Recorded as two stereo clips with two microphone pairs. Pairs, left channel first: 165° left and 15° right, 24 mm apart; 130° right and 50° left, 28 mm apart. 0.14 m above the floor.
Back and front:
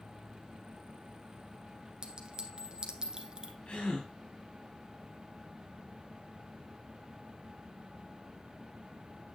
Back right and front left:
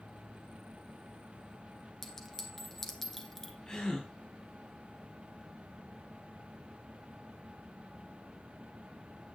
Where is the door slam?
I don't hear a door slam.